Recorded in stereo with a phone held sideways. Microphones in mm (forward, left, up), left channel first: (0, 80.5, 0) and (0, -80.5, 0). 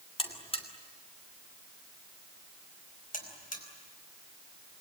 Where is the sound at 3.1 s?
55° left (ahead or behind), 4.5 m.